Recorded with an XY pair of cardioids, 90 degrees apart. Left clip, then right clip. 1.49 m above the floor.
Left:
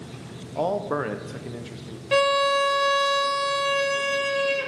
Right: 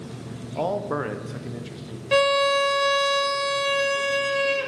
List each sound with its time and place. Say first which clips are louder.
0.6 s a man speaking: left 1 dB; 5° left, 0.9 m
2.1 s a violin: right 1 dB; 10° right, 0.7 m